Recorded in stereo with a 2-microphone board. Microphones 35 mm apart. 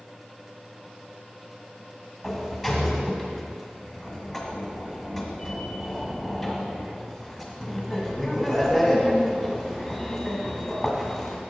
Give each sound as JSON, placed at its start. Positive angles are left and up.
{"t": 2.2, "sound": "a sliding door", "side_deg": 0, "distance_m": 1.6}